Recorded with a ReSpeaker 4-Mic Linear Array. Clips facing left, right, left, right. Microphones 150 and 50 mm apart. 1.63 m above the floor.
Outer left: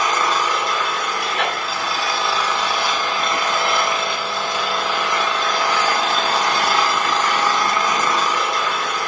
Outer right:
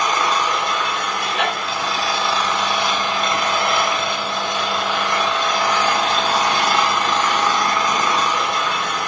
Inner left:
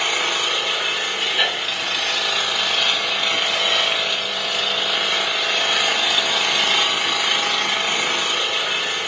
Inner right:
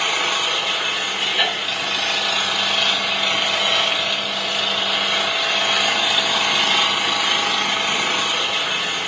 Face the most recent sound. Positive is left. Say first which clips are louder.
# even, inner right 1 dB
turn(degrees=0)  # may be behind; listen again after turning